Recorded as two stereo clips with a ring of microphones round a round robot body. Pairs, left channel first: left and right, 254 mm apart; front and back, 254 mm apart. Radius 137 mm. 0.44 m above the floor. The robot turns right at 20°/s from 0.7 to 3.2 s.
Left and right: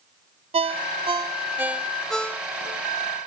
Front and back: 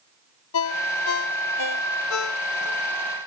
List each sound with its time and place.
0.5 s a ringtone: 25° right; by 2.8 s 15° left